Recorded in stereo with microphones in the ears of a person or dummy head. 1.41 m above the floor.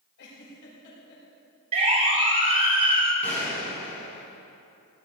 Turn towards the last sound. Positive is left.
turn(degrees=10)  # may be behind; listen again after turning